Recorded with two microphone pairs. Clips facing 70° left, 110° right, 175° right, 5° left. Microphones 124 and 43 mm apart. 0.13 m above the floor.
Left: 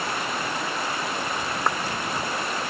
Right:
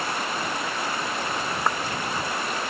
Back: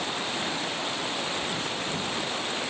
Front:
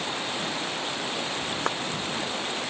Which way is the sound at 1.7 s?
20° right.